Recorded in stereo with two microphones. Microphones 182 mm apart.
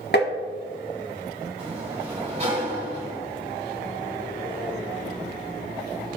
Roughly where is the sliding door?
Right.